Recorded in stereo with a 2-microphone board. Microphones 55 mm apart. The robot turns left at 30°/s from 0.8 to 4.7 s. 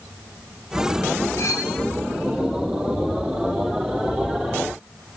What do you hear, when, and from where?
1.4 s cutlery clinking: 70° left (ahead or behind), 1.7 m; by 1.7 s 65° left (ahead or behind), 1.7 m